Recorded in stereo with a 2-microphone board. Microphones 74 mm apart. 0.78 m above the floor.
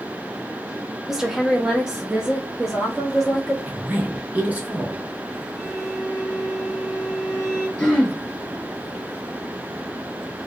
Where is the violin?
10° left (ahead or behind), 1.7 m.